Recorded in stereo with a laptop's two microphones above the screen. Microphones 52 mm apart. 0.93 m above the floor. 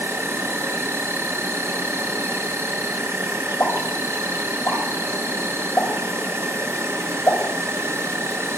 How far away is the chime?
I don't hear a chime.